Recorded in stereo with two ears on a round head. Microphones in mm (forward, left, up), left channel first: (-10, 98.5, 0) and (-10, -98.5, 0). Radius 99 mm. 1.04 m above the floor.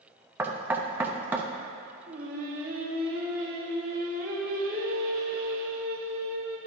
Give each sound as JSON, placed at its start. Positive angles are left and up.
{"t": 0.4, "sound": "knocking", "side_deg": -10, "distance_m": 0.5}
{"t": 2.1, "sound": "singing", "side_deg": -40, "distance_m": 1.1}